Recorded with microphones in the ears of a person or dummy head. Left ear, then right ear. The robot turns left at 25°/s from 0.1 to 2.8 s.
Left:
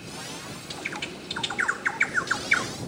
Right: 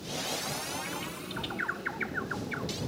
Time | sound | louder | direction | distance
0.7 | a bird | left 3 dB | 60° left (ahead or behind) | ?